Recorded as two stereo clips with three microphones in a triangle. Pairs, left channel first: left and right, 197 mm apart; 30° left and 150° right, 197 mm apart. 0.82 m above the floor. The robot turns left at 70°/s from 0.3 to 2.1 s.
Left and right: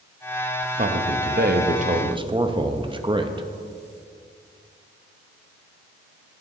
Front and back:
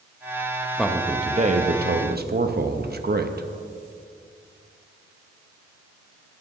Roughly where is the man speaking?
Ahead right.